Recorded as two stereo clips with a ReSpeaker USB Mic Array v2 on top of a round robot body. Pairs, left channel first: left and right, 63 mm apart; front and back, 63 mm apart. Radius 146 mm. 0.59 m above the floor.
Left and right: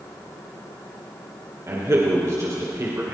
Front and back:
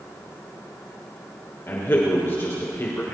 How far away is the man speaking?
About 3 m.